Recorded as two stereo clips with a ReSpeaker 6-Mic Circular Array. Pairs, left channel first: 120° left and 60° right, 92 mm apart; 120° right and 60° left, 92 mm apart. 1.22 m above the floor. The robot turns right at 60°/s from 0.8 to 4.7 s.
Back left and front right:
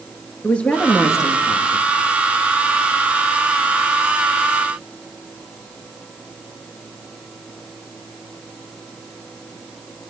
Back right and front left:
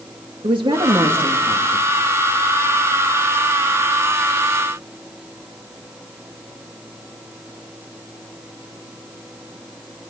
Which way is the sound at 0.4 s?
45° left.